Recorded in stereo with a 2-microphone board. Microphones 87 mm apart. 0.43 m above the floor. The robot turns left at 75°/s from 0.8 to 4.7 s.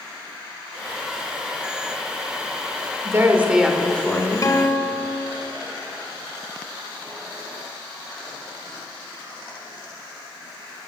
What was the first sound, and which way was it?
A woman speaking, 130° right.